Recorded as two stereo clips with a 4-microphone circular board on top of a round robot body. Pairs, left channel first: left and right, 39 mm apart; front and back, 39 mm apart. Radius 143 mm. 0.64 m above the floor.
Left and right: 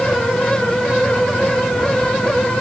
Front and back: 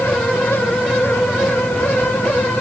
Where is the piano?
No piano in this recording.